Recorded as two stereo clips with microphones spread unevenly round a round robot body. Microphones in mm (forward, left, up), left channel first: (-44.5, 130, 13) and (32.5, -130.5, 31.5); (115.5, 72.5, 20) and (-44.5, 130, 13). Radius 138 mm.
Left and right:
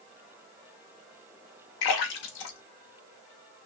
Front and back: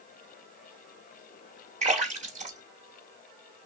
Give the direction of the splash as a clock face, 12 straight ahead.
8 o'clock.